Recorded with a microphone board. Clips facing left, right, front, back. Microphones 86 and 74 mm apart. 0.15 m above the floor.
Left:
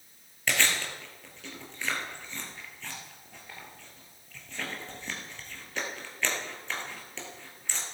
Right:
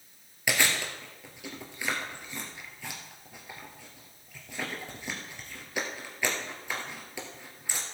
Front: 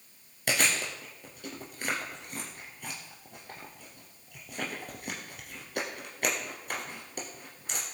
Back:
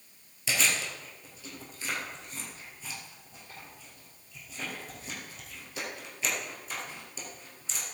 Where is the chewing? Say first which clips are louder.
Right 1 dB, front 1 dB; 15° right, 2.5 m.